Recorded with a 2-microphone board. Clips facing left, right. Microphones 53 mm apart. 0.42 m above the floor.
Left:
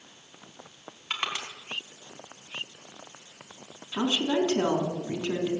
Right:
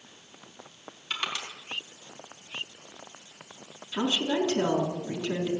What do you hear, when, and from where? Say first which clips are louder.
1.1 s crushing: left 1 dB; 25° left (ahead or behind), 3.5 m
3.9 s a woman speaking: left 1 dB; 20° left (ahead or behind), 4 m